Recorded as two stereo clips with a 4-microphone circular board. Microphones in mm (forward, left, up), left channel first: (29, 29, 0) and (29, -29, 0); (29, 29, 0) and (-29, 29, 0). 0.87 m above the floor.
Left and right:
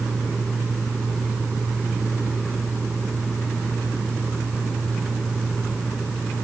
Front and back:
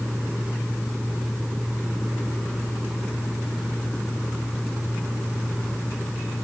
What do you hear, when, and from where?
Only background noise.